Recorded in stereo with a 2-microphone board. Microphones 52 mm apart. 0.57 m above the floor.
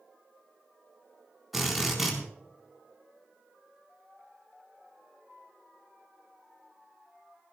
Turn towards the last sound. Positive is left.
turn(degrees=-5)  # may be behind; listen again after turning